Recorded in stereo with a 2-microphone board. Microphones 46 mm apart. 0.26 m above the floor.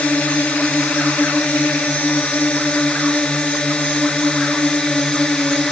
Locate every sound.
0.0 s a drone: 30° left (ahead or behind); by 5.7 s 15° left (ahead or behind)